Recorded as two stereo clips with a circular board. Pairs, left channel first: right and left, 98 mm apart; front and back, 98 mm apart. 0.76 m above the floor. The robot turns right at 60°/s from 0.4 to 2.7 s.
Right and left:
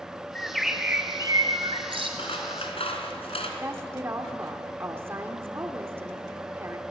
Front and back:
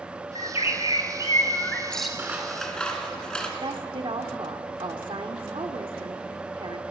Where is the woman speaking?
155° left, 1.8 m.